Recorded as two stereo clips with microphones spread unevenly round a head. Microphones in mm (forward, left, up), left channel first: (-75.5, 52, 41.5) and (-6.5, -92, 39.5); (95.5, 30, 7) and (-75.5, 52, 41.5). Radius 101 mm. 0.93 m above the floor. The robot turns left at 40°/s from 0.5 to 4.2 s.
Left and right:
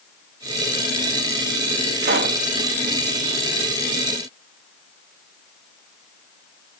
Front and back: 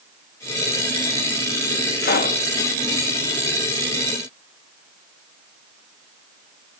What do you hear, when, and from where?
2.0 s a pop: 40° right, 1.2 m; by 2.4 s 55° right, 1.2 m